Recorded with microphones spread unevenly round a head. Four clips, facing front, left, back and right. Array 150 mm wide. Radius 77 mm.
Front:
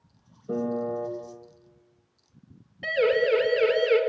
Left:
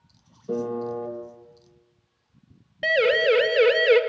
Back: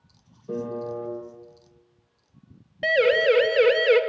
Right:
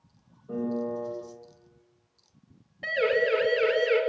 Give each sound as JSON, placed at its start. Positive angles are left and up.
{"t": 0.5, "sound": "a piano", "azimuth_deg": 90, "distance_m": 5.5}
{"t": 2.8, "sound": "a siren", "azimuth_deg": 130, "distance_m": 3.5}